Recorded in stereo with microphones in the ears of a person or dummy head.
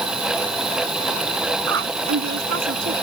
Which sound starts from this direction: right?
A woman speaking, at 1.7 s.